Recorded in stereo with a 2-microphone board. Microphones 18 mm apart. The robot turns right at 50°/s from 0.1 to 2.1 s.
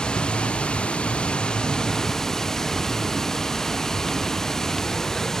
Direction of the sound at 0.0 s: 55° left.